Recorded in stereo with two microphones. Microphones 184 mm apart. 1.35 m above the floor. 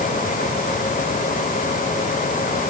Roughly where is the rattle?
No rattle in this recording.